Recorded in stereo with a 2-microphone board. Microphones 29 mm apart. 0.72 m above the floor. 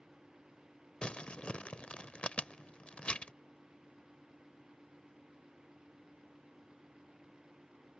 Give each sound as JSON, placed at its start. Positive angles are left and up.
{"t": 1.0, "sound": "crumpling", "side_deg": 45}